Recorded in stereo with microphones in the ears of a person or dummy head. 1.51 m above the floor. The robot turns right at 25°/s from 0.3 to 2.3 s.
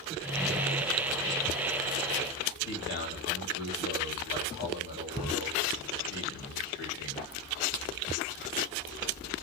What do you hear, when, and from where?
2.7 s a man speaking: 60° left (ahead or behind), 1.5 m